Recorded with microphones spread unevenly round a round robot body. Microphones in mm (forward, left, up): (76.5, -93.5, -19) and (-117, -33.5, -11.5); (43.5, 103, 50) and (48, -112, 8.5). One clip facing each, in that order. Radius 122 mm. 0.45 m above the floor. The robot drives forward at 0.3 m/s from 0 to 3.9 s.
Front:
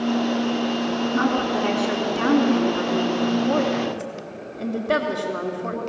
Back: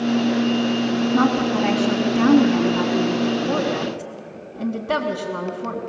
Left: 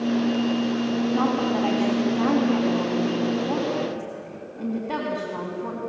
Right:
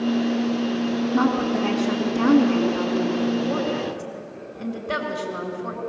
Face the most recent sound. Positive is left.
turn(degrees=-170)